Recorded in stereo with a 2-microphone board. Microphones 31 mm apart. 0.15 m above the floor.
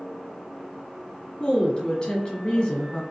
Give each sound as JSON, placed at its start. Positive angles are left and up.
{"t": 1.4, "sound": "a woman speaking", "side_deg": 20, "distance_m": 1.5}